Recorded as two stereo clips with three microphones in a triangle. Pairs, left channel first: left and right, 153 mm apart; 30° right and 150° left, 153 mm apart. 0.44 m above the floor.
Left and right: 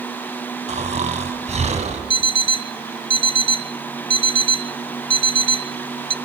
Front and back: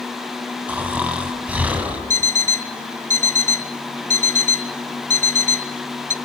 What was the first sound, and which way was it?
Snoring, 130° right.